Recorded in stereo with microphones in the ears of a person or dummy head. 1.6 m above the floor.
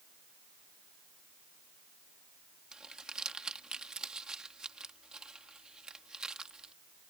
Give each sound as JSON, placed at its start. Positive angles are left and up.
{"t": 2.7, "sound": "crumpling", "side_deg": 0}